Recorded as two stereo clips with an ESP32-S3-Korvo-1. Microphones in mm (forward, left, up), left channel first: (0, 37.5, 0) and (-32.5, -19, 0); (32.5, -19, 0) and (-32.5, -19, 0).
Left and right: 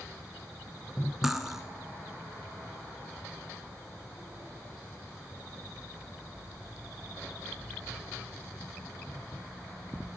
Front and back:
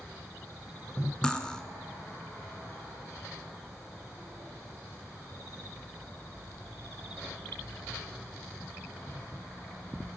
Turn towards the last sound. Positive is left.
turn(degrees=-45)